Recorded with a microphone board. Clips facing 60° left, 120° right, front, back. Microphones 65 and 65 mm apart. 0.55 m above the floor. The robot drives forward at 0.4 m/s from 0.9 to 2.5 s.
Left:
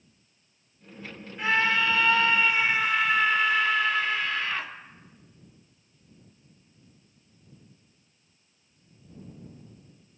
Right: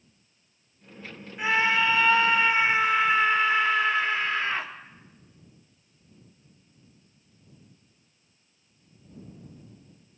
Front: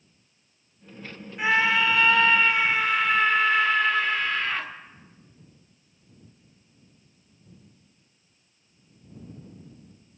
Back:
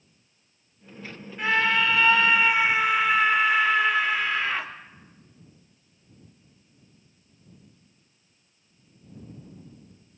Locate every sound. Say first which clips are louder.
1.4 s a scream: right 1 dB, front 1 dB; 60° right, 1.0 m; by 4.7 s 120° right, 1.0 m